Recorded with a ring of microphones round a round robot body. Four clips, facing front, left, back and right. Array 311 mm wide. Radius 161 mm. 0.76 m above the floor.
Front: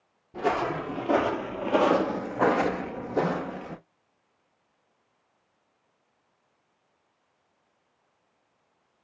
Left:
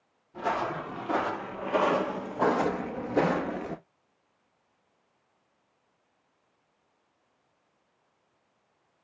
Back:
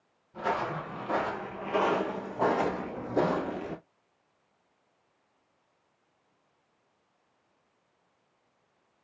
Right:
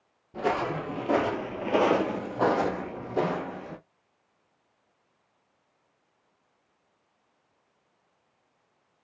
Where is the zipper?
No zipper in this recording.